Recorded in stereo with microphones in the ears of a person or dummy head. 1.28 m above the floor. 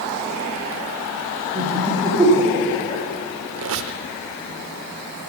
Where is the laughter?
35° right (ahead or behind), 2.5 m; by 3.0 s 5° right (ahead or behind), 3.5 m.